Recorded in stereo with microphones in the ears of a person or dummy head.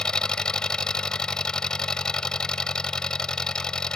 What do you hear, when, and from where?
0.0 s an engine running: 10° left (ahead or behind)